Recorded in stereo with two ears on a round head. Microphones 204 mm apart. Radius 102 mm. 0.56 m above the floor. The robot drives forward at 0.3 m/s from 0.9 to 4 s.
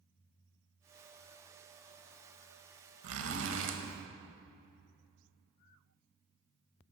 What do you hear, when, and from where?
3.0 s a zipper: 70° right (ahead or behind), 0.8 m; by 3.8 s 55° right (ahead or behind), 0.9 m